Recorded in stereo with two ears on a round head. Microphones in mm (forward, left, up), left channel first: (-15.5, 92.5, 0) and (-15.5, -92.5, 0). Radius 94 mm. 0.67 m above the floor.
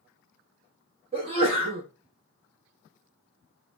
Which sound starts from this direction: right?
A sneeze, at 1.1 s.